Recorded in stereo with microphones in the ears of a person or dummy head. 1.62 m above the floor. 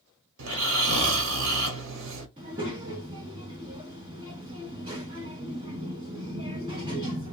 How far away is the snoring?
About 0.9 m.